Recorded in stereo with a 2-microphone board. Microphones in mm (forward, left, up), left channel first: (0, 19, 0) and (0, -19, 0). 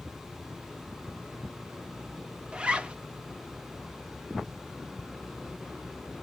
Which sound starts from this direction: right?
A zipper, at 2.5 s.